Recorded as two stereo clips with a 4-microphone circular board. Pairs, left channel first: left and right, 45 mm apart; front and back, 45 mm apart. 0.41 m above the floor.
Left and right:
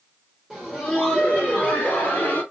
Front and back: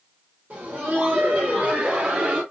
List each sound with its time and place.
0.5 s laughter: 165° right, 1.1 m; by 2.4 s 125° left, 1.6 m